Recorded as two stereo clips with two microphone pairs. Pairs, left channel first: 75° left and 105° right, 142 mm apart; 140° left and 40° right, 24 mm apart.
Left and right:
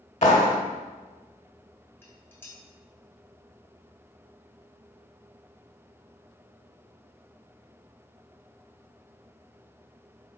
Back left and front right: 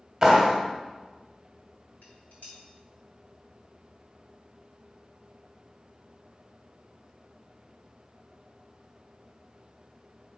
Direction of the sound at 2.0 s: 150° left.